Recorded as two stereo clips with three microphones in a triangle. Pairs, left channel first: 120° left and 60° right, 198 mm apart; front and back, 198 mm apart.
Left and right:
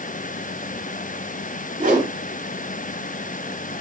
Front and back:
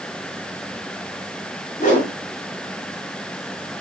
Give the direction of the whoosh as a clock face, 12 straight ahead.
1 o'clock.